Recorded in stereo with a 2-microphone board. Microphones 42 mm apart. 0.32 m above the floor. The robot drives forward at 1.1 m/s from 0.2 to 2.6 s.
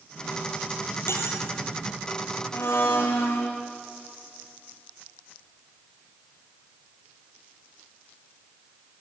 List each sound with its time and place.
1.1 s cutlery clinking: 75° left (ahead or behind), 5 m; by 1.4 s 80° left, 5 m
2.5 s a blender: 70° left (ahead or behind), 4.5 m